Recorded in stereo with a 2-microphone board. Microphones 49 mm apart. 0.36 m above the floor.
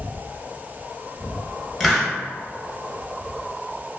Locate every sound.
1.8 s a hiss: centre (ahead or behind), 0.7 m